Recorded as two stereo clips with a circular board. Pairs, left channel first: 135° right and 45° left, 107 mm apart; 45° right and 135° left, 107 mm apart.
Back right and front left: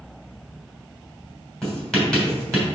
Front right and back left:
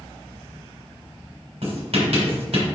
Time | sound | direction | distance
1.6 | writing | 140° left | 3 m